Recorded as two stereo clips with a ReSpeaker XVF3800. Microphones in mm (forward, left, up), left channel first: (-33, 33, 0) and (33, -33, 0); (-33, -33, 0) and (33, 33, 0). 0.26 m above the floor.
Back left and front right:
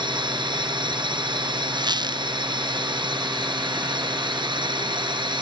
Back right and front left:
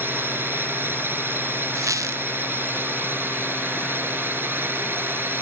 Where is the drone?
20° right.